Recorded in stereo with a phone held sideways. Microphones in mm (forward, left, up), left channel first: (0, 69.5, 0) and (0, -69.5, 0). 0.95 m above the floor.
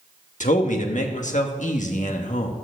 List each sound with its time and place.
0.4 s a man speaking: 65° left (ahead or behind), 1.4 m